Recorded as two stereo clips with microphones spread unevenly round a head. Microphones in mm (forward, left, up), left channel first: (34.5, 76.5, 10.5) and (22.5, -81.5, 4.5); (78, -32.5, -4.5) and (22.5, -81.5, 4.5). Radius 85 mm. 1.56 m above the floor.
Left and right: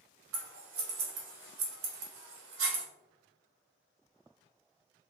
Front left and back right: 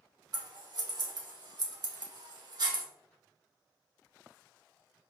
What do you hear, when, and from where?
0.3 s scissors: 110° right, 1.2 m